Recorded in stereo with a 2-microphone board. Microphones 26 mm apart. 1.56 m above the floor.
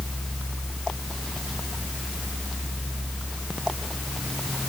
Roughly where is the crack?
I don't hear a crack.